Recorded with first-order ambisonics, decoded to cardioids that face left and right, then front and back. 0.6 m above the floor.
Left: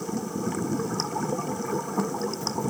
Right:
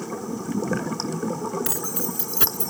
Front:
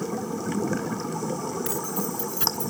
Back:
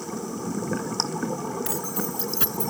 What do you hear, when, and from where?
1.6 s keys jangling: 95° right; by 2.7 s 105° right